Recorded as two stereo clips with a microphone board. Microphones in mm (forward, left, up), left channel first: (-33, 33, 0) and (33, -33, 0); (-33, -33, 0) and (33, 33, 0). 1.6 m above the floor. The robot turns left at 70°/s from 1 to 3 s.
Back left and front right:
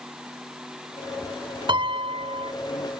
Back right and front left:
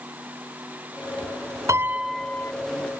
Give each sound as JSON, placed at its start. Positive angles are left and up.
{"t": 1.7, "sound": "a piano", "azimuth_deg": -10}